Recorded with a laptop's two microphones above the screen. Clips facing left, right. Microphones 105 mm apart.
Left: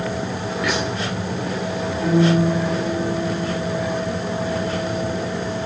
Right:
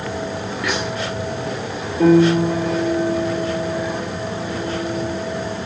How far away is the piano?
About 5 m.